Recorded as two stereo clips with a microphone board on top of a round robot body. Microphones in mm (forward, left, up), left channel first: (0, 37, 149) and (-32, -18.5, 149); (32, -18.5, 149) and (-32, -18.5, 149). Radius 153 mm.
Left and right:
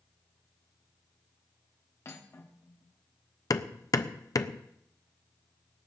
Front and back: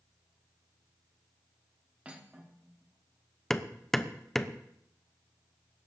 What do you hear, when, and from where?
2.0 s cutlery clinking: 110° left, 1.2 m
3.5 s hammering: 85° left, 0.8 m